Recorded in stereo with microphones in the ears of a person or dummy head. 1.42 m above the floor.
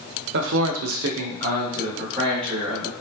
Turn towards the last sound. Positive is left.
turn(degrees=-20)  # may be behind; listen again after turning